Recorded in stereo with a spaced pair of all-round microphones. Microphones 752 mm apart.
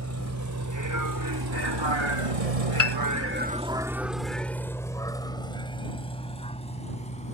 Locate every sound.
0.0 s a vehicle: 20° right (ahead or behind); by 7.3 s 10° left (ahead or behind)
2.8 s a piano: 20° right (ahead or behind)